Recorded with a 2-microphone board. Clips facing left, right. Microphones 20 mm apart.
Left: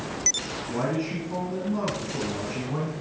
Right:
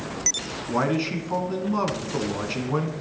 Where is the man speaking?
40° right (ahead or behind), 1.8 m.